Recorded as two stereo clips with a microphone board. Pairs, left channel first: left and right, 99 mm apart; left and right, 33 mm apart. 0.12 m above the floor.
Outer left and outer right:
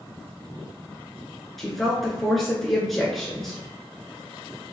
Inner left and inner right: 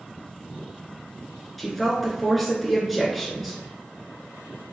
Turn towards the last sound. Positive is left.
turn(degrees=0)  # may be behind; listen again after turning